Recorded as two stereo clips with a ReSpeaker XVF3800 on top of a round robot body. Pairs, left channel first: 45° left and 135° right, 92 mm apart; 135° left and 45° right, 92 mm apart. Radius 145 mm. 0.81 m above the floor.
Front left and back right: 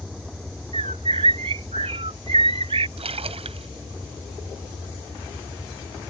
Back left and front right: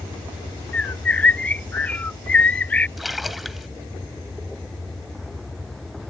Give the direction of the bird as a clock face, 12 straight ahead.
5 o'clock.